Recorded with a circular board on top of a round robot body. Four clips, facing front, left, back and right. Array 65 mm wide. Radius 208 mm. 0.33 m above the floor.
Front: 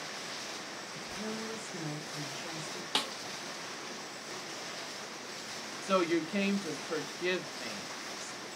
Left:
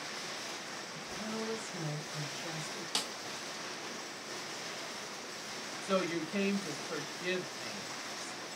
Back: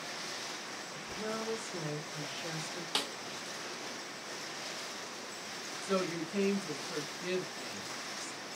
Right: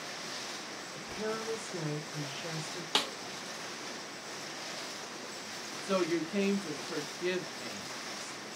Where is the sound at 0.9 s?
105° right, 2.5 m; by 2.9 s 125° right, 1.9 m.